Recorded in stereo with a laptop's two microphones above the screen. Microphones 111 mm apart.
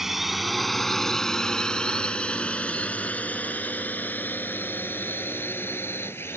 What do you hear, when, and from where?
0.0 s a drone: centre (ahead or behind); by 6.4 s 20° left (ahead or behind)